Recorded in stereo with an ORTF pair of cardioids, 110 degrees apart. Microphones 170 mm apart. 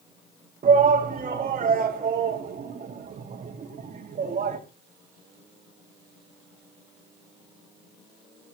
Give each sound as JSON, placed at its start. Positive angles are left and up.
{"t": 0.6, "sound": "a shout", "azimuth_deg": -45, "distance_m": 2.0}